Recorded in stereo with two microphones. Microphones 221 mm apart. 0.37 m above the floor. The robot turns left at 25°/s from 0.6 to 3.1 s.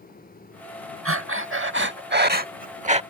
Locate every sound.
1.1 s breathing: 100° right; by 3.0 s 150° right